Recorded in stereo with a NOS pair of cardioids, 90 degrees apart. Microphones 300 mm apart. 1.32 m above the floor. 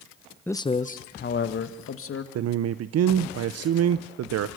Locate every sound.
0.5 s a man speaking: 5° left, 0.6 m; by 2.2 s 50° left, 1.9 m
2.4 s a man speaking: 55° right, 0.7 m